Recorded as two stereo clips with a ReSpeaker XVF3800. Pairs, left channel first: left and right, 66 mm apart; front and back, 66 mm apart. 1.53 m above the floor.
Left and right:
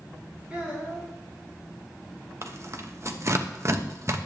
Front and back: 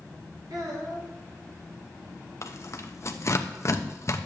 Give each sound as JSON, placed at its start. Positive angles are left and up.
{"t": 0.5, "sound": "a child speaking", "azimuth_deg": -165, "distance_m": 4.0}
{"t": 2.4, "sound": "tearing paper", "azimuth_deg": -45, "distance_m": 0.9}